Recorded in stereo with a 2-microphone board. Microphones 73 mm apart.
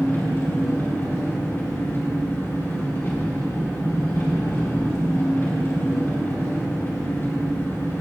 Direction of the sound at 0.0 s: 35° left (ahead or behind).